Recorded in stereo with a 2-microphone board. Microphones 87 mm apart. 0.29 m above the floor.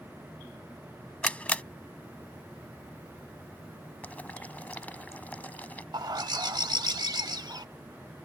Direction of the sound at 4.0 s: 20° left (ahead or behind).